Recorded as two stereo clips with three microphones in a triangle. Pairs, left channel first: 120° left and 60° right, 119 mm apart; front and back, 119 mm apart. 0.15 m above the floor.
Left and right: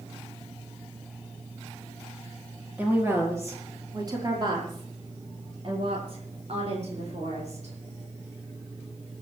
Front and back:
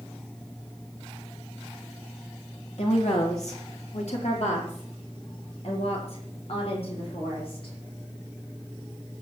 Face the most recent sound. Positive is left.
turn(degrees=-35)